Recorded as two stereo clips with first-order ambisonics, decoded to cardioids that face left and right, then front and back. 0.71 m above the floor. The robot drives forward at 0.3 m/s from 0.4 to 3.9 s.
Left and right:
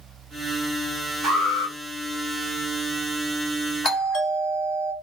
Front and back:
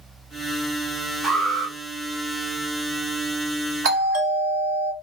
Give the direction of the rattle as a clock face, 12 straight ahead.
No rattle in this recording.